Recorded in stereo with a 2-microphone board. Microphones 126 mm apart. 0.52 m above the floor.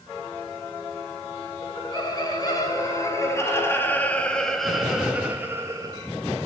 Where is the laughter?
35° left (ahead or behind), 6.5 m; by 6.1 s 35° right (ahead or behind), 3 m.